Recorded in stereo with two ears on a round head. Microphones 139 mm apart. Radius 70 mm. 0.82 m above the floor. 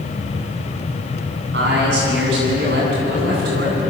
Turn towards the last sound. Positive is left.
turn(degrees=-85)